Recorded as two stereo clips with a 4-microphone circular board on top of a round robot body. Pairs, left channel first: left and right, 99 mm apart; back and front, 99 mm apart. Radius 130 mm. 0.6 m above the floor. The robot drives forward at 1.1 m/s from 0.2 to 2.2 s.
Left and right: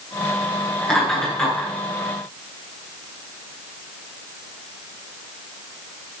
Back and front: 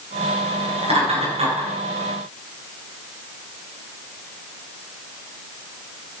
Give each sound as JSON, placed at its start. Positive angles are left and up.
{"t": 0.8, "sound": "laughter", "azimuth_deg": 10, "distance_m": 9.5}